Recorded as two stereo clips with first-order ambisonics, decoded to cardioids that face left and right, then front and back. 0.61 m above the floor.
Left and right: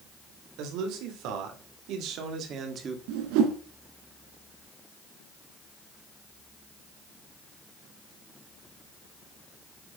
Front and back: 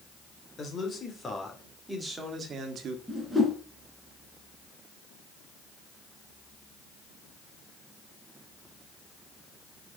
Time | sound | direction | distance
0.6 | a man speaking | 70° right | 3 m
3.1 | a whoosh | 90° right | 2.0 m